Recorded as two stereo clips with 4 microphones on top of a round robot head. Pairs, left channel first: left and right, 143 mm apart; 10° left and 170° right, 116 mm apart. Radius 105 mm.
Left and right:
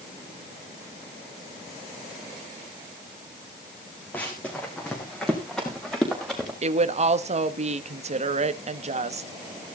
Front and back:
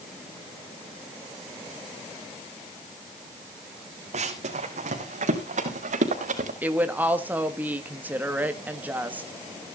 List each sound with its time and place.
4.1 s running footsteps: 170° left, 3 m; by 6.5 s straight behind, 4.5 m
6.6 s a woman speaking: 95° right, 1.3 m